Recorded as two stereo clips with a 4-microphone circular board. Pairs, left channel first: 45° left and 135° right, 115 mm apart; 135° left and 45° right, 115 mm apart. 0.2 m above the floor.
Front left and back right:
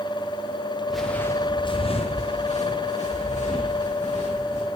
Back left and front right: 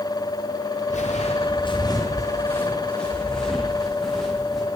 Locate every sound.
0.9 s footsteps: 140° left, 1.4 m; by 4.6 s 45° left, 5.5 m